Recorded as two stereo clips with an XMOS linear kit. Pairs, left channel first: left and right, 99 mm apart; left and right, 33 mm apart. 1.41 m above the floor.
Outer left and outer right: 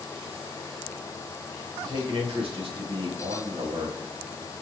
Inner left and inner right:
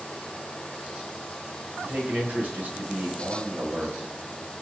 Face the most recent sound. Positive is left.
turn(degrees=-65)  # may be behind; listen again after turning